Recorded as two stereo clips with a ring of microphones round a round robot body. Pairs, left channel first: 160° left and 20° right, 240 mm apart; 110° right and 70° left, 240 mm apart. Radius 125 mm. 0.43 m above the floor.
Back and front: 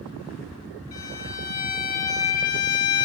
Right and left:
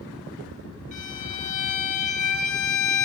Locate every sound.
0.9 s a violin: 175° right, 3 m